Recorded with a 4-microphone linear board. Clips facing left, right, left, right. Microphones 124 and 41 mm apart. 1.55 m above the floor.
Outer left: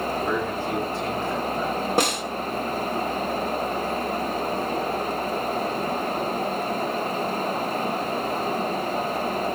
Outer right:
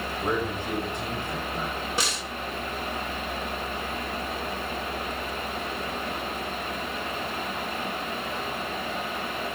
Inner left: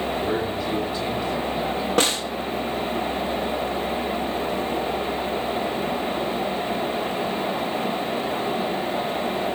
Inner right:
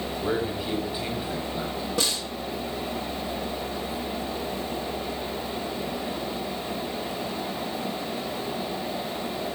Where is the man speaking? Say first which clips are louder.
Outer left 3 dB, inner left 3 dB; 15° right (ahead or behind), 8 m.